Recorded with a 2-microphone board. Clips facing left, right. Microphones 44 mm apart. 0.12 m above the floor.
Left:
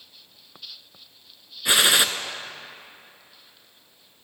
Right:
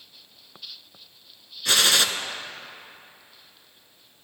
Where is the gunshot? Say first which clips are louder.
Left 2 dB; 20° left (ahead or behind), 0.5 m.